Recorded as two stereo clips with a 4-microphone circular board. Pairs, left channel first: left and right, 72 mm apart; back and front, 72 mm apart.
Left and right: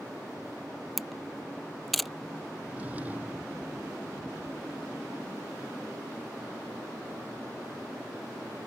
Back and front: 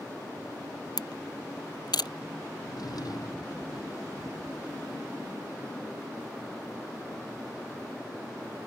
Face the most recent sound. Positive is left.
turn(degrees=-155)